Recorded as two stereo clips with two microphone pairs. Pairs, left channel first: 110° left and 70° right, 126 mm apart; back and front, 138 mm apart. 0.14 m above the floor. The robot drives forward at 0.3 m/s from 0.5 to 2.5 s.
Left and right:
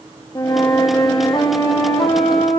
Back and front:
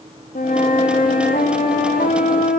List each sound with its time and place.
0.3 s a flute: 170° left, 2.5 m